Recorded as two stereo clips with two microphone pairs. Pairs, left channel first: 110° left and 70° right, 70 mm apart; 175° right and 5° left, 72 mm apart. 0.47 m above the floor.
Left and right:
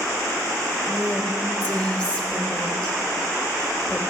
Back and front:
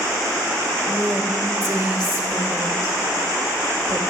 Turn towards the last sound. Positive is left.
turn(degrees=45)